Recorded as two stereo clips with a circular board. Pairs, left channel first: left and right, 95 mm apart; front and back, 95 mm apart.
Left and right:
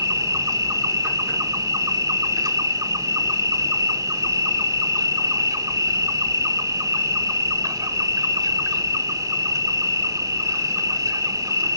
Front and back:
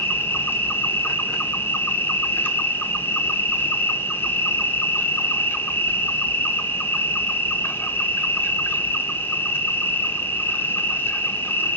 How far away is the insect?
About 0.8 m.